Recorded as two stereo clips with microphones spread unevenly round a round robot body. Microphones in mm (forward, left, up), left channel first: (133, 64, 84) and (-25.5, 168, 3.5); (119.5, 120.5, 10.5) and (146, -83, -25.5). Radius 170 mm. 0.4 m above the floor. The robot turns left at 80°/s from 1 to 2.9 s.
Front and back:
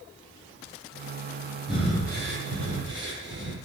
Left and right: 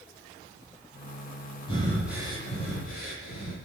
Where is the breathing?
120° right, 8.5 m; by 3.6 s 140° left, 8.5 m.